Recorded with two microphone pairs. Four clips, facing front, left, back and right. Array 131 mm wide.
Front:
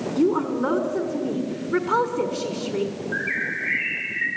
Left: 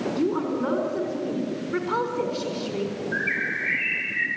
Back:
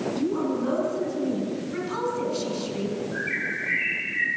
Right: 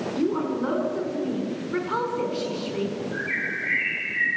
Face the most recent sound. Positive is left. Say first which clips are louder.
# left 2 dB, front 2 dB
turn(degrees=40)